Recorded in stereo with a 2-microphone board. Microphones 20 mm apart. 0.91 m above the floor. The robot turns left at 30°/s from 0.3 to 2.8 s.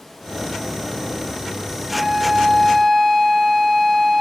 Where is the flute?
30° right (ahead or behind), 4.5 m; by 4.2 s 5° right (ahead or behind), 4.5 m.